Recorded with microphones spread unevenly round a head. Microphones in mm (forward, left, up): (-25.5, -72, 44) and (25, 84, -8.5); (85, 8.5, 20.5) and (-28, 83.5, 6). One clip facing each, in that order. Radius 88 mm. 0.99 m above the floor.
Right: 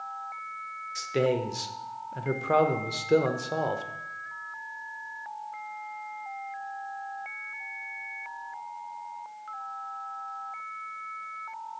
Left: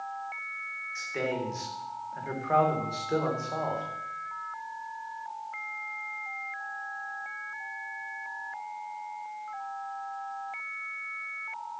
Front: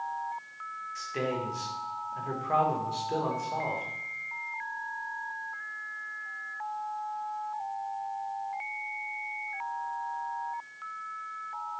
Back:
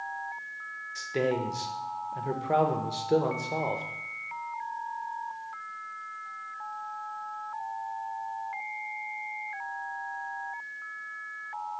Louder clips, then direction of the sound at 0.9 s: Right 6 dB, back 4 dB; 160° right.